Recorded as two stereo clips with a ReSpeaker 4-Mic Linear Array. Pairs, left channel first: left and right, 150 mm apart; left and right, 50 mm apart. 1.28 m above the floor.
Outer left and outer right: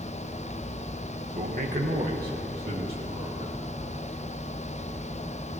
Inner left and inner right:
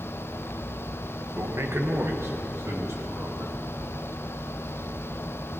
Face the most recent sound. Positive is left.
turn(degrees=-75)  # may be behind; listen again after turning